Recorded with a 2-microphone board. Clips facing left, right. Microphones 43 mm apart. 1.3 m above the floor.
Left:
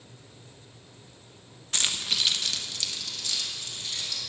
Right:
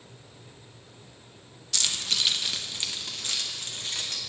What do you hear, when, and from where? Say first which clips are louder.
1.7 s keys jangling: left 1 dB; 35° left (ahead or behind), 0.8 m; by 4.2 s 50° right (ahead or behind), 2.5 m